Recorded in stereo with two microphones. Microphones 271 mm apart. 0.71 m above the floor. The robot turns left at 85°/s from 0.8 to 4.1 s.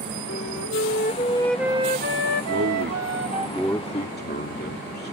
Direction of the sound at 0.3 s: 65° left.